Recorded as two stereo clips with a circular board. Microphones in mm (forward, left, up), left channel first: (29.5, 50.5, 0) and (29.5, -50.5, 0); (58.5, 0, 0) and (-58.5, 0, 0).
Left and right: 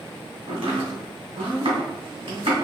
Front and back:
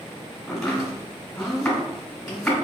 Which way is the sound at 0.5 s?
90° right.